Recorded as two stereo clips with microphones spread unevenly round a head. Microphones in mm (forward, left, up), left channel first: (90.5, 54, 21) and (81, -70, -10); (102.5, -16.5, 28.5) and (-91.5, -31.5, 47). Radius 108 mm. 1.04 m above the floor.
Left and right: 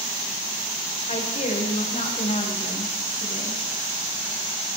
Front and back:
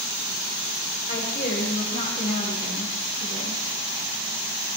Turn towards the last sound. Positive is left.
turn(degrees=60)